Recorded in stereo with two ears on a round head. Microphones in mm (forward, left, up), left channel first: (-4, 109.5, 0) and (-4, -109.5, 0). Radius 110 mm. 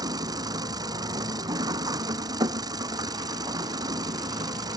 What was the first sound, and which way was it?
An engine running, 15° right (ahead or behind).